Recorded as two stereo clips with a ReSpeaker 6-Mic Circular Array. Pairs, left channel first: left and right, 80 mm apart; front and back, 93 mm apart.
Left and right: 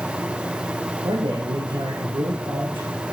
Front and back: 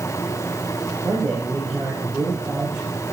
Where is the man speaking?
85° right, 5.5 m.